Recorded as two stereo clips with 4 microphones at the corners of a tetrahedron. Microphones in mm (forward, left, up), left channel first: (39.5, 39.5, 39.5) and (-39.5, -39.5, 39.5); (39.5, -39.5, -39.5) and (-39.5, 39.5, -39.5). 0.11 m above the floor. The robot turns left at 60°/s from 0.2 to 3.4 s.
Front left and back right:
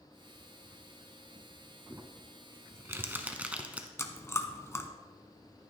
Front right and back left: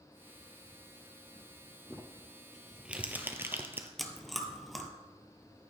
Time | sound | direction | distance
1.9 | crumpling | 105° right | 0.9 m
4.0 | chewing | 40° left | 0.9 m